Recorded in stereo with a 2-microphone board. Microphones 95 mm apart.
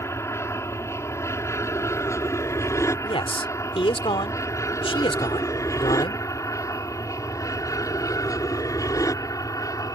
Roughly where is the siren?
No siren in this recording.